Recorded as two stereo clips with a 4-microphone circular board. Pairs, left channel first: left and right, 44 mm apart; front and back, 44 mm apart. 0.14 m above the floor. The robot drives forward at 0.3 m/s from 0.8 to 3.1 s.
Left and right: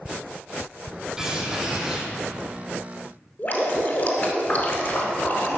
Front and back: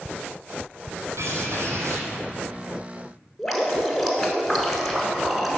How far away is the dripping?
About 1.2 m.